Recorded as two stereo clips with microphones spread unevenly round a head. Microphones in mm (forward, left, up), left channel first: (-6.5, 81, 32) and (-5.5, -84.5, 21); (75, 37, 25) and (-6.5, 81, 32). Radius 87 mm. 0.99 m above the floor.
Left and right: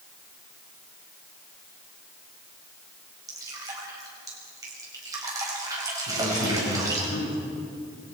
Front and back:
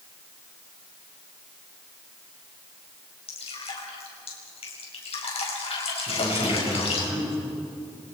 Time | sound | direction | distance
3.3 | dripping | 20° right | 5 m
6.1 | a man speaking | 90° left | 8.5 m